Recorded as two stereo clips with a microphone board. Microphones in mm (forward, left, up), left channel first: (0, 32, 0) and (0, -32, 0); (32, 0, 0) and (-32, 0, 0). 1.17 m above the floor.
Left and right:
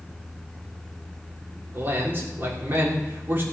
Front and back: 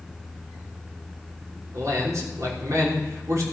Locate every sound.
1.7 s a man speaking: 145° right, 3 m